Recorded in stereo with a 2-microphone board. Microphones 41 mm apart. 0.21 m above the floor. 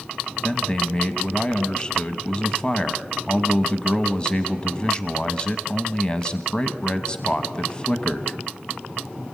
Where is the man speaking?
20° left (ahead or behind), 1.1 m.